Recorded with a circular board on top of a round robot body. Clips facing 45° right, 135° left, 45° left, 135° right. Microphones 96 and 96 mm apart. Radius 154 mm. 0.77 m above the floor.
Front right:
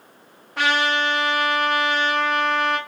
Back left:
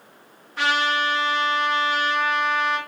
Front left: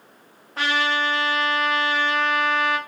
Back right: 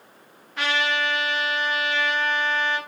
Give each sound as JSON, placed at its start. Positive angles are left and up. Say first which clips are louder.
{"t": 0.6, "sound": "a trumpet", "louder": "front right 1 dB, front left 2 dB", "azimuth_deg": -10, "distance_m": 0.7}